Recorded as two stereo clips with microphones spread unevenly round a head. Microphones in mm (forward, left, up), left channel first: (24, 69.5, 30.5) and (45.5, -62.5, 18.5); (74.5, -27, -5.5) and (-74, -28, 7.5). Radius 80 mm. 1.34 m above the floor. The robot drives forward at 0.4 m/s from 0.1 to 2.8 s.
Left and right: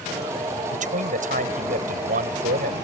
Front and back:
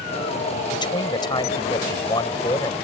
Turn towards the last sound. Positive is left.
turn(degrees=-65)